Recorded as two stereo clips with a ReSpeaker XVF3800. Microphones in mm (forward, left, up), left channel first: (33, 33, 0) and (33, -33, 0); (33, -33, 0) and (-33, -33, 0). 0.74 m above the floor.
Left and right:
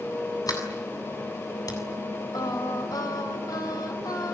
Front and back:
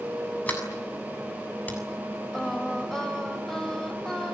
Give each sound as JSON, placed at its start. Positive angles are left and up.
{"t": 0.5, "sound": "a sliding door", "azimuth_deg": 70, "distance_m": 7.0}
{"t": 2.3, "sound": "singing", "azimuth_deg": 85, "distance_m": 3.5}